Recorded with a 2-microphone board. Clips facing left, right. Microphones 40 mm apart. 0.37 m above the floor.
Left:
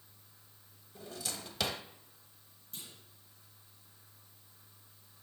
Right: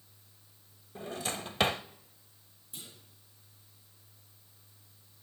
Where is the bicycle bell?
I don't hear a bicycle bell.